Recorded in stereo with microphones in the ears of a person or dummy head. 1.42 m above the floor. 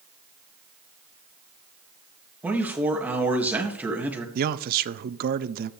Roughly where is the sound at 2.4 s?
Centre.